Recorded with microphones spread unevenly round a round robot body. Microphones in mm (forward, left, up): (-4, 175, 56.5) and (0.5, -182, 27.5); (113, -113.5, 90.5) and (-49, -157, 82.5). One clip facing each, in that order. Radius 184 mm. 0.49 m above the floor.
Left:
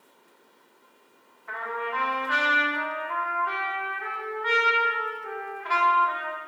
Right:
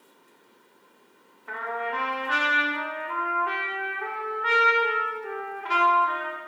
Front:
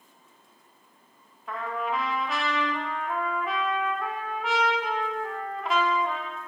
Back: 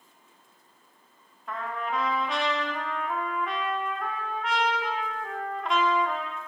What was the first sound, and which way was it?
A trumpet, 75° right.